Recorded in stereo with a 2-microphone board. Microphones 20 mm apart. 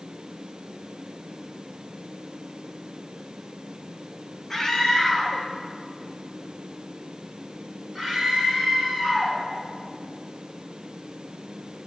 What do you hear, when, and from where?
4.5 s a scream: 25° left (ahead or behind), 1.2 m; by 9.4 s 5° left (ahead or behind), 2.5 m